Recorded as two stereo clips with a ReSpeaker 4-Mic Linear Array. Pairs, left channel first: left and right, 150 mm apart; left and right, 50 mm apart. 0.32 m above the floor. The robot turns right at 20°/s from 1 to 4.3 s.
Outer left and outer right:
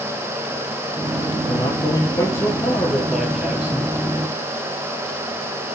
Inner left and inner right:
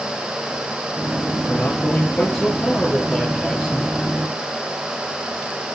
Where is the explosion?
I don't hear an explosion.